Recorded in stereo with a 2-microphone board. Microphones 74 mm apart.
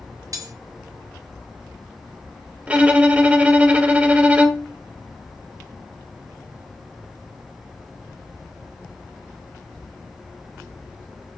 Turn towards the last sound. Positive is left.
turn(degrees=-20)  # may be behind; listen again after turning